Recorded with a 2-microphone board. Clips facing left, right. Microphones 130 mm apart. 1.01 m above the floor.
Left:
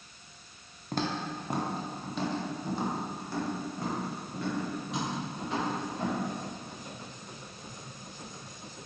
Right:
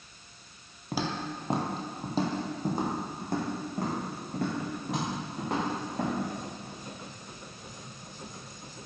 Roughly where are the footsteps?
Centre.